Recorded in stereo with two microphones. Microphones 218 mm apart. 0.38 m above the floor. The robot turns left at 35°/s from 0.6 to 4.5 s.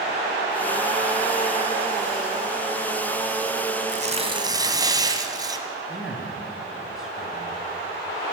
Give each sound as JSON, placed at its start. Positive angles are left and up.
{"t": 3.9, "sound": "tearing paper", "side_deg": -35, "distance_m": 2.0}
{"t": 5.9, "sound": "a man speaking", "side_deg": 0, "distance_m": 5.0}